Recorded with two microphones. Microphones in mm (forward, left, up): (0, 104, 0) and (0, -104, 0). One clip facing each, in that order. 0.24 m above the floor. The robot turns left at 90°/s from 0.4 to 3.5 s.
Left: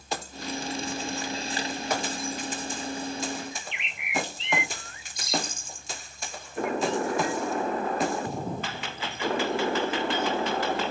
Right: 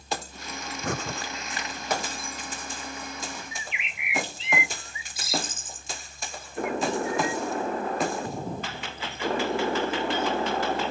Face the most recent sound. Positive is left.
turn(degrees=-5)  # may be behind; listen again after turning